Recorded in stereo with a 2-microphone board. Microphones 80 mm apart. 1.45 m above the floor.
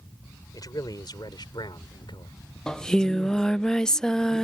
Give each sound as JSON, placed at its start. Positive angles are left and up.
{"t": 0.5, "sound": "a man speaking", "side_deg": 50}
{"t": 2.7, "sound": "singing", "side_deg": 10}